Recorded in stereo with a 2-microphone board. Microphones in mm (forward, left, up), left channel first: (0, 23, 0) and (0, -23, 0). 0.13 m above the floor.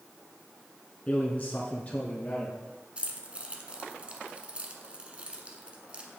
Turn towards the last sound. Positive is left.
turn(degrees=-25)  # may be behind; listen again after turning